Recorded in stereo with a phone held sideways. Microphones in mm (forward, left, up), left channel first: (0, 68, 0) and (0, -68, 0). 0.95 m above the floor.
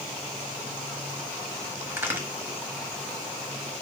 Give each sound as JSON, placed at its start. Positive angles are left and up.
{"t": 1.9, "sound": "a crack", "side_deg": -15, "distance_m": 1.0}